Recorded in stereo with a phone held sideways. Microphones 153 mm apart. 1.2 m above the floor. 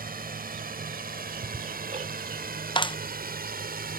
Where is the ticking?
50° right (ahead or behind).